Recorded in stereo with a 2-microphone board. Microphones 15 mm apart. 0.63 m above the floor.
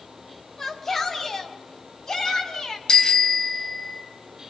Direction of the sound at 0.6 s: 10° left (ahead or behind).